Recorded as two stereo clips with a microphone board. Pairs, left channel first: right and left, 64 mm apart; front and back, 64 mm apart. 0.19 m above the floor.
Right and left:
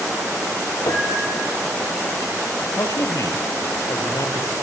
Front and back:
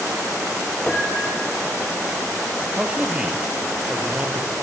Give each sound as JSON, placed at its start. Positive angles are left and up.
{"t": 0.9, "sound": "a piano", "azimuth_deg": -75, "distance_m": 2.5}
{"t": 2.8, "sound": "a man speaking", "azimuth_deg": -110, "distance_m": 4.0}